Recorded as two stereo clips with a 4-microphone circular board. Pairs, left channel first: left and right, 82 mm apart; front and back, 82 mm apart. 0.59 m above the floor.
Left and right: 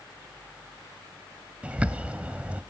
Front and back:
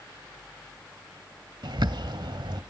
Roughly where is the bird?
Behind.